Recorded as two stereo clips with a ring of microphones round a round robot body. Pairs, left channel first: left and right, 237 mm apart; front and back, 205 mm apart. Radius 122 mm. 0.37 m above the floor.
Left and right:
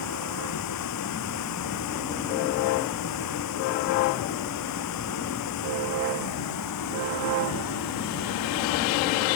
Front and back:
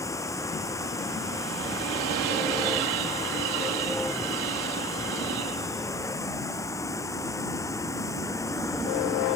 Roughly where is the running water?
Left.